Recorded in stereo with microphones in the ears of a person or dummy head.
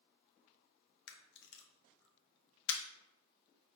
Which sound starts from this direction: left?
A camera shutter, at 1.1 s.